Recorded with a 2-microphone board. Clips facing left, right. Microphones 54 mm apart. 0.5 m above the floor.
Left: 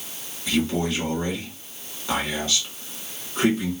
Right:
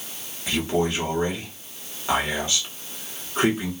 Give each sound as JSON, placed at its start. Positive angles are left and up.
{"t": 0.5, "sound": "a man speaking", "side_deg": -20, "distance_m": 1.9}